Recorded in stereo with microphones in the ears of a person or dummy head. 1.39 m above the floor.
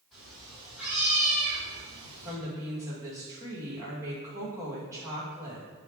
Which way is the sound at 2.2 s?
15° right (ahead or behind).